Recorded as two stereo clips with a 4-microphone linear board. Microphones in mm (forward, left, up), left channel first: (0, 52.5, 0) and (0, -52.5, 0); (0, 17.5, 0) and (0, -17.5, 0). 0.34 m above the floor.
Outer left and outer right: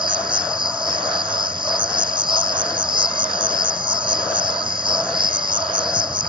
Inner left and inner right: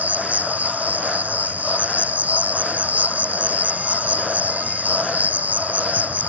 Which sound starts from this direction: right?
An insect, at 0.0 s.